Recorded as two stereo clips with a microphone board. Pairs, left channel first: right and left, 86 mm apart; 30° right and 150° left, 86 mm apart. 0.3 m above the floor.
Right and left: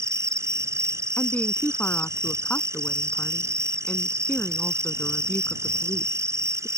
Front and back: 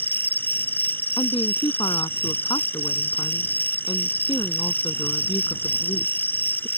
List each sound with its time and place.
0.0 s an insect: 35° left
1.2 s a woman speaking: 20° right